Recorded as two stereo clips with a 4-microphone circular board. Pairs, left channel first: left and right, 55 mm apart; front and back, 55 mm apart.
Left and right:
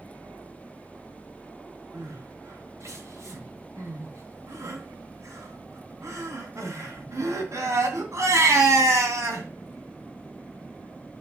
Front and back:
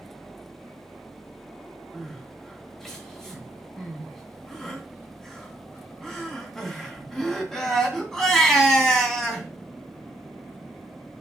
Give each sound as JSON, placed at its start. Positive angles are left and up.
{"t": 1.9, "sound": "crying", "azimuth_deg": -85, "distance_m": 2.5}